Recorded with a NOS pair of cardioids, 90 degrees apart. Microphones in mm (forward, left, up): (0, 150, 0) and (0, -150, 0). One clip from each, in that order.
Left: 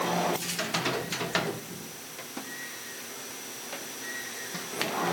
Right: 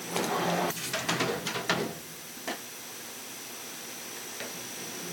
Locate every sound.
Only background noise.